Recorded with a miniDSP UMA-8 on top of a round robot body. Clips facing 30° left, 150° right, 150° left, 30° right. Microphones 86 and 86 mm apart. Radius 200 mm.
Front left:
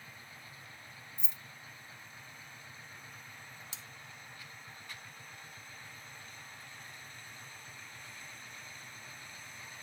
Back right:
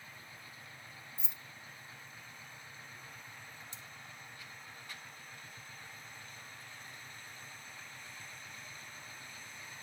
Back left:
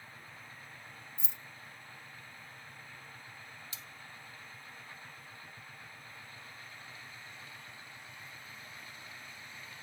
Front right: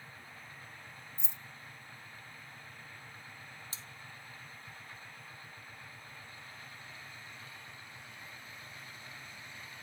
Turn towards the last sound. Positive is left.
turn(degrees=30)